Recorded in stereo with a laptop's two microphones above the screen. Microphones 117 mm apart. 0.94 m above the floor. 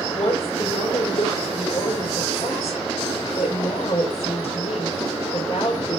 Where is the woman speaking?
65° left (ahead or behind), 4.5 m.